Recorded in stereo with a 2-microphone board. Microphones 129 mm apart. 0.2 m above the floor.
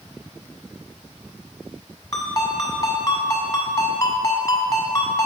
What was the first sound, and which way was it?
A ringtone, 30° left (ahead or behind).